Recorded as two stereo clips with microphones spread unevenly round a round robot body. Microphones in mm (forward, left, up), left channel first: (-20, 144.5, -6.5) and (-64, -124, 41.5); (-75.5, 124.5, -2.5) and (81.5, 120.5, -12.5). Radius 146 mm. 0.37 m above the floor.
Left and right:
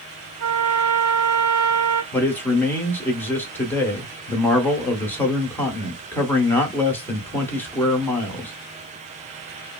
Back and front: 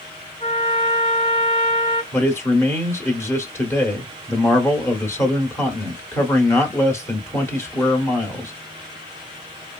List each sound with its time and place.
0.4 s a trumpet: 100° right, 2 m
2.1 s a man speaking: 120° left, 0.9 m